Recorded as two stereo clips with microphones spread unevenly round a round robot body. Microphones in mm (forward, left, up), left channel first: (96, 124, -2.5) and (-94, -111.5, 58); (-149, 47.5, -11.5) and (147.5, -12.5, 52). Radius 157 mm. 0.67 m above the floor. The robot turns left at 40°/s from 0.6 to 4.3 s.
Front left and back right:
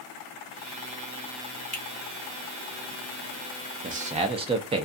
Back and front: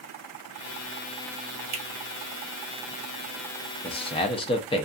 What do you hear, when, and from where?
1.7 s a finger snap: 20° right, 1.0 m; by 1.8 s 25° right, 1.0 m
3.8 s a man speaking: 175° left, 0.5 m; by 4.9 s 155° left, 0.5 m